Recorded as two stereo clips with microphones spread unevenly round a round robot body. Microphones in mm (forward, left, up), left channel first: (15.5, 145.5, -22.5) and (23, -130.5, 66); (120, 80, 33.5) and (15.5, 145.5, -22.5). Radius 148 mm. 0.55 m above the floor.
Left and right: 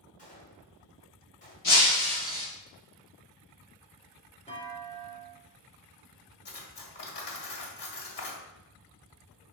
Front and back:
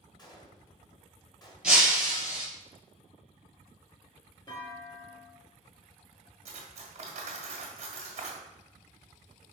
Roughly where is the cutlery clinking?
Behind left.